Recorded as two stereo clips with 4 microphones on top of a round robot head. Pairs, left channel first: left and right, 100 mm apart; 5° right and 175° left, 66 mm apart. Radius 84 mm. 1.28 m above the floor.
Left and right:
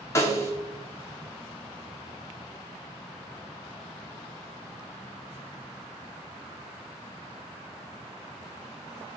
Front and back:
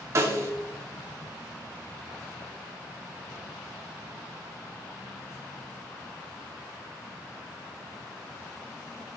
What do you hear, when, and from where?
0.1 s a snare drum: 145° left, 1.0 m